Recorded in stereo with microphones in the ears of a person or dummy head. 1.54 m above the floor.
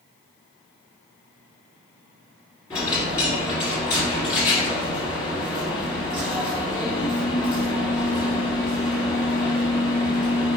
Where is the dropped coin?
15° left (ahead or behind), 1.7 m.